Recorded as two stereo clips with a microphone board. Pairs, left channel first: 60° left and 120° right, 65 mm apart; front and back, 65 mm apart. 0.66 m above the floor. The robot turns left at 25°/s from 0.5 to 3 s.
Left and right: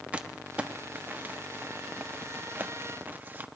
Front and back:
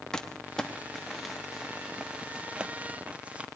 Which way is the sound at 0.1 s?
70° right.